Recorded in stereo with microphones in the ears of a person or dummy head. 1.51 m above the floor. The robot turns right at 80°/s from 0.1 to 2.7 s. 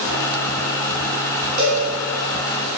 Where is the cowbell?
50° right (ahead or behind), 1.2 m; by 1.8 s 55° right (ahead or behind), 1.2 m.